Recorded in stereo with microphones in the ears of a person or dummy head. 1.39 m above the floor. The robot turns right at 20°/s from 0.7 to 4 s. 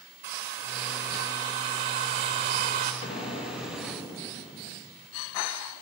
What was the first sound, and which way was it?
A hair dryer, 15° right (ahead or behind).